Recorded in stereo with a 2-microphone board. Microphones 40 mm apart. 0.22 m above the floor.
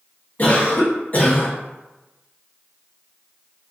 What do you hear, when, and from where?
0.4 s a cough: 40° left (ahead or behind), 1.5 m